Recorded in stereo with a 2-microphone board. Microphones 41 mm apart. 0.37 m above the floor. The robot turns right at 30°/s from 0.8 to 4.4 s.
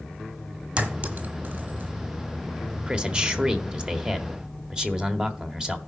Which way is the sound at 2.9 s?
25° right (ahead or behind).